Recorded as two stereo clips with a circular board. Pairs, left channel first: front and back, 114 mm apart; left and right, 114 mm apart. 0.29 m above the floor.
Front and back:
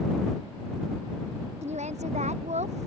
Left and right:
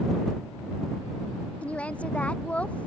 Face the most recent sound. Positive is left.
turn(degrees=170)